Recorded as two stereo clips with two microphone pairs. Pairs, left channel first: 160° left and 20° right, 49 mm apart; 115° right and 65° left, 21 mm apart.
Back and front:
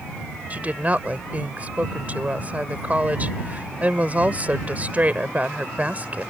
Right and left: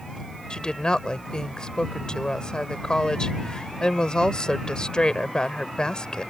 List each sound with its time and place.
0.5 s a woman speaking: 75° right